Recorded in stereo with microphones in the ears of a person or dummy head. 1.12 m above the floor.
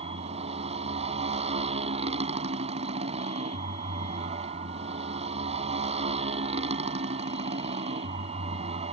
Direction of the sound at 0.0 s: 40° right (ahead or behind).